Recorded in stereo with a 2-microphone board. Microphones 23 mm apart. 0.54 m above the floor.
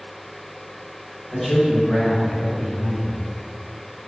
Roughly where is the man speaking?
Left.